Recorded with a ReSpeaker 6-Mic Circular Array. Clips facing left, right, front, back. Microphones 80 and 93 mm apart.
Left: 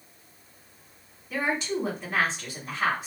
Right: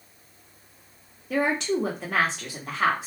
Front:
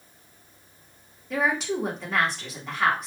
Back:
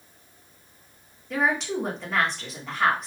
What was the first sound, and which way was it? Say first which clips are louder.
A woman speaking: right 4 dB, even; 90° right.